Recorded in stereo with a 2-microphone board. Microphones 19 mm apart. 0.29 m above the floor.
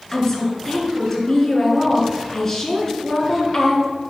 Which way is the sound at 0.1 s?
20° left (ahead or behind).